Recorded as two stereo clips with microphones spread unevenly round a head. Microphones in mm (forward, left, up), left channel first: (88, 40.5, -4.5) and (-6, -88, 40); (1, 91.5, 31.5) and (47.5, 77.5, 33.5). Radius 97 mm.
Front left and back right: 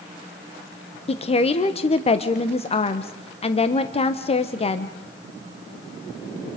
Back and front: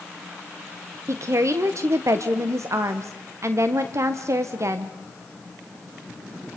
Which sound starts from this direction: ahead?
A woman speaking, at 1.1 s.